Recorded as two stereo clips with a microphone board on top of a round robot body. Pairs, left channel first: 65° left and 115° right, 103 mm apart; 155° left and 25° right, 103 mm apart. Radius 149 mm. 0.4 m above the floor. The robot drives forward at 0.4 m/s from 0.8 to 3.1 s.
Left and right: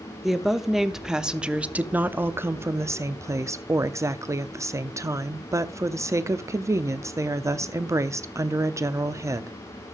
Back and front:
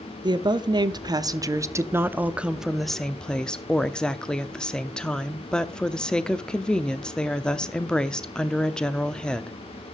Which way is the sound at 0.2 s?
25° right.